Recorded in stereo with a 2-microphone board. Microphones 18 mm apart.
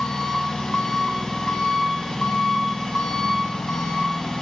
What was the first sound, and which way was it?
An engine running, 45° left (ahead or behind).